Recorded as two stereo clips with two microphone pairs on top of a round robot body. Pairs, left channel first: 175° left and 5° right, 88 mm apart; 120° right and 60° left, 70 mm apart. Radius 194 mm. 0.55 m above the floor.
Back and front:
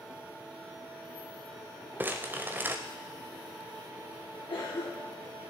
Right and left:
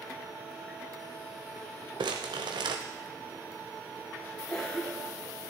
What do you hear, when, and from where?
2.0 s crumpling: 60° left, 0.8 m
4.5 s a cough: 160° left, 2 m